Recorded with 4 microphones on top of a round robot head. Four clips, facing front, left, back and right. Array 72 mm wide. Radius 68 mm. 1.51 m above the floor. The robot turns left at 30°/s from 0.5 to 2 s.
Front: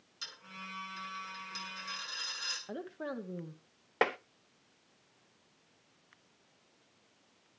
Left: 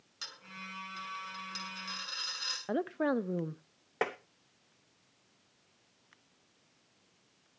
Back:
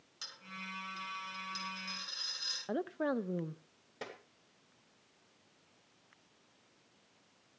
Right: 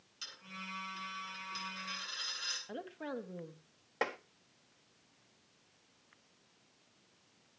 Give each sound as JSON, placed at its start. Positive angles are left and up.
{"t": 0.2, "sound": "a dropped coin", "azimuth_deg": 105, "distance_m": 9.0}
{"t": 2.7, "sound": "a woman speaking", "azimuth_deg": 105, "distance_m": 0.9}
{"t": 4.0, "sound": "tapping", "azimuth_deg": 15, "distance_m": 0.8}